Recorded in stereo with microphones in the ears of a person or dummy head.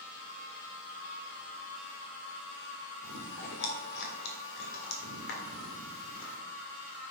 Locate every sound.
0.0 s a machine running: 80° left, 2 m
3.0 s chewing: 70° left (ahead or behind), 1.6 m